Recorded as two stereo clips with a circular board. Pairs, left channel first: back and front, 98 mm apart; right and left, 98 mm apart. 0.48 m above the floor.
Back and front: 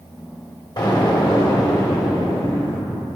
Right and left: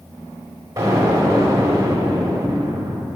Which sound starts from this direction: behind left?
An explosion, at 0.8 s.